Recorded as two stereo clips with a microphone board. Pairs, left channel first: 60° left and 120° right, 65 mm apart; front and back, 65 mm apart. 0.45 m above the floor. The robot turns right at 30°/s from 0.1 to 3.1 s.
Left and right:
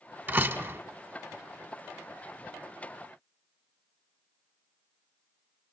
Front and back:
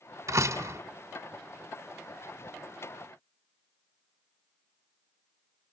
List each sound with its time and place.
0.3 s a door slam: 165° right, 1.3 m; by 0.8 s 150° right, 1.3 m